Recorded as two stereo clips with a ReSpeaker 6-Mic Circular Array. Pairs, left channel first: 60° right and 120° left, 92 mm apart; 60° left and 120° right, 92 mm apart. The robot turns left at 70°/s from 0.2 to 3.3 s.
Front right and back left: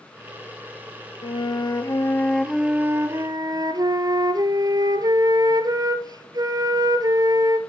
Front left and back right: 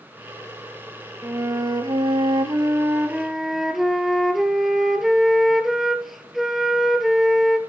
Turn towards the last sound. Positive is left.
turn(degrees=150)